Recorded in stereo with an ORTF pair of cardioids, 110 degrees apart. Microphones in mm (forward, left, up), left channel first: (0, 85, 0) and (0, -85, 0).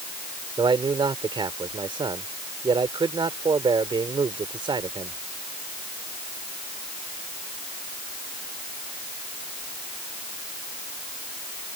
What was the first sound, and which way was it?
A man speaking, 30° right.